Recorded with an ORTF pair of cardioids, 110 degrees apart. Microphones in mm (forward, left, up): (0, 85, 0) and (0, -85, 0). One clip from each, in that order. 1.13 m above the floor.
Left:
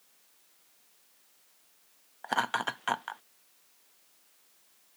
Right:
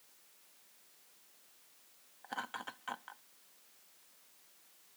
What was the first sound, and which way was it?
Laughter, 65° left.